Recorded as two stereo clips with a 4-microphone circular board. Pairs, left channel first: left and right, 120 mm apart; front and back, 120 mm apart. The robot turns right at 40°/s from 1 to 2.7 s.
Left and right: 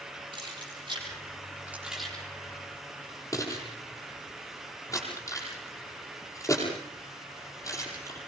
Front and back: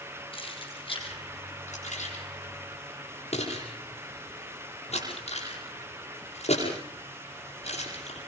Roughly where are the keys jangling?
Ahead right.